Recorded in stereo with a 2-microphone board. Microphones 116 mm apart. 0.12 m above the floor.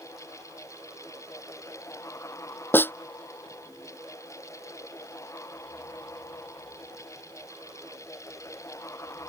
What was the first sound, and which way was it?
A snare drum, 20° left (ahead or behind).